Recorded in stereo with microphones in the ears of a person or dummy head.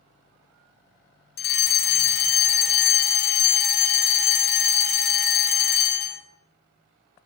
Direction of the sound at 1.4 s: 40° left (ahead or behind).